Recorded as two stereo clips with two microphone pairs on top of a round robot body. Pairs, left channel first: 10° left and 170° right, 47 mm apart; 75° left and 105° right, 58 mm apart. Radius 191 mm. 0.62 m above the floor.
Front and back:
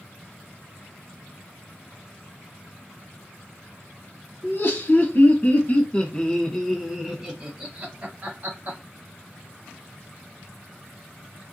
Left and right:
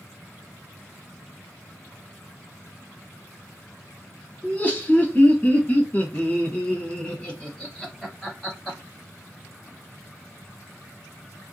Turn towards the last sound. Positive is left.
turn(degrees=165)